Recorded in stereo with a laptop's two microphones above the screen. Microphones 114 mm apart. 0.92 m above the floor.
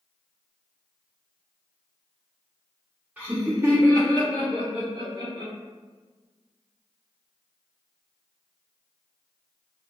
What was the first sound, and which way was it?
Laughter, 10° right (ahead or behind).